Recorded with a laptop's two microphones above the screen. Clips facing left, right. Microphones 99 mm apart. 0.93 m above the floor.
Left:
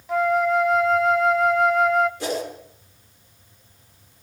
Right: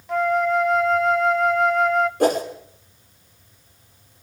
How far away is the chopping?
I don't hear chopping.